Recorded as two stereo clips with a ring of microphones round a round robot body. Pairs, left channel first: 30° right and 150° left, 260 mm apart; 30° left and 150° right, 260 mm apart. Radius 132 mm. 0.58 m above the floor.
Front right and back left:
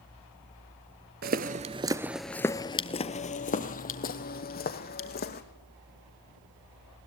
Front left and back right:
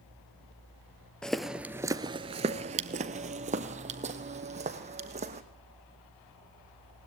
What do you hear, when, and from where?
1.2 s footsteps: 115° left, 0.7 m; by 5.4 s 85° right, 2 m